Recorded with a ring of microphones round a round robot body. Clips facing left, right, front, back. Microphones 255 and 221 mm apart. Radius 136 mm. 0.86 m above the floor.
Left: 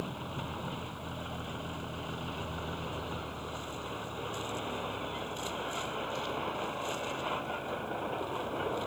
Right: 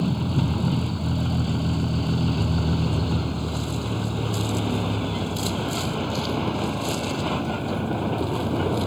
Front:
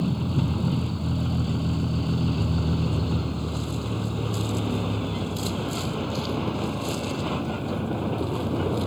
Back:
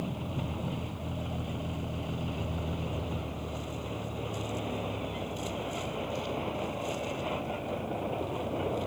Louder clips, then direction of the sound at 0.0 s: Right 15 dB, front 10 dB; 55° right.